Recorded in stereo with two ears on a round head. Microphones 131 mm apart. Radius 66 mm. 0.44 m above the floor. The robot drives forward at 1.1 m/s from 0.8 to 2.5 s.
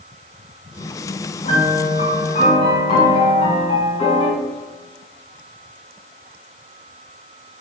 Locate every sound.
1.4 s a piano: 50° left (ahead or behind), 4 m; by 4.3 s 40° left (ahead or behind), 5 m